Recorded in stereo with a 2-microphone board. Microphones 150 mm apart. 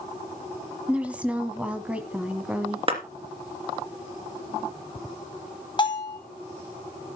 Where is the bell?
30° left (ahead or behind), 1.7 m.